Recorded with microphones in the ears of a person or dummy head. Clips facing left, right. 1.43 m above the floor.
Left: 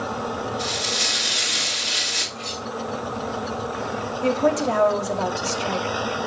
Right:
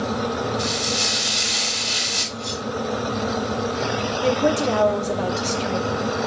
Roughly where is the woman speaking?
Centre.